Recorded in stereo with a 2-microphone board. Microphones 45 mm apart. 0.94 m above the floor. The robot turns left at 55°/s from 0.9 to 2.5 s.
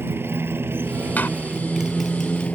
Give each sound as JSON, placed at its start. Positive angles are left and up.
{"t": 0.0, "sound": "a motorcycle", "azimuth_deg": -120}
{"t": 1.2, "sound": "a door slam", "side_deg": 40}